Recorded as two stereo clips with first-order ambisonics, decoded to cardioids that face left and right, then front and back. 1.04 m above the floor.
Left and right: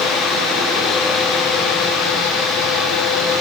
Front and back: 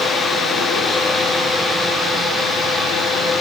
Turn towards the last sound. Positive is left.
No sound to turn to.